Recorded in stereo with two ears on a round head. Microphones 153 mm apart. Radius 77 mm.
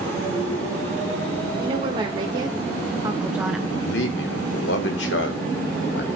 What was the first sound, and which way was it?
A woman speaking, 30° right (ahead or behind).